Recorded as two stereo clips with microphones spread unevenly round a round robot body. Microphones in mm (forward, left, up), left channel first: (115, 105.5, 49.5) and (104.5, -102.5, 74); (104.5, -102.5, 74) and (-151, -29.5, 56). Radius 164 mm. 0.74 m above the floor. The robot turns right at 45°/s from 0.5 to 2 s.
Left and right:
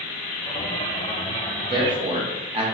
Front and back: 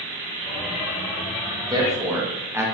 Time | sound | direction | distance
1.6 | a man speaking | 155° right | 1.0 m